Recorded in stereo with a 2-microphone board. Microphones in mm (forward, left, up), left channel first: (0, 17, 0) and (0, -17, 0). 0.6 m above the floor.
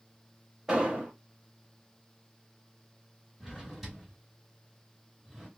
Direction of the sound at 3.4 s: Centre (ahead or behind).